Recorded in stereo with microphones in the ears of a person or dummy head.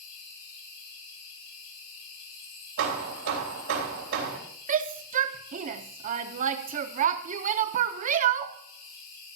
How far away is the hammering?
About 3.5 m.